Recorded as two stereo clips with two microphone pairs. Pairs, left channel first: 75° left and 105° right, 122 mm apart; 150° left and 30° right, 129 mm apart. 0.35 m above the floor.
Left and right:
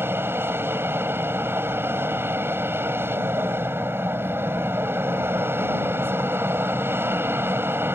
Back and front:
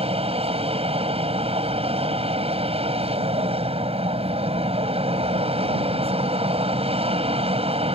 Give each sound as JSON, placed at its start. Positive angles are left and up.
{"t": 0.0, "sound": "an aircraft", "azimuth_deg": -40}